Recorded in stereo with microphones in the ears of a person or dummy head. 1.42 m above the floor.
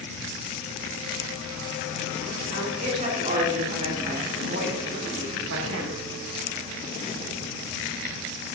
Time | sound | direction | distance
2.5 | a woman speaking | 35° right (ahead or behind) | 4 m